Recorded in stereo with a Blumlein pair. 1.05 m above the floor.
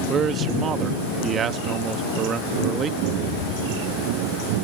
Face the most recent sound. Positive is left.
turn(degrees=-25)